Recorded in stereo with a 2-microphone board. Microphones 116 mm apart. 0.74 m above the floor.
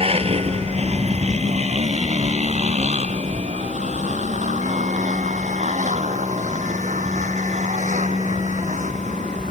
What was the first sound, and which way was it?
A motorcycle, 55° right (ahead or behind).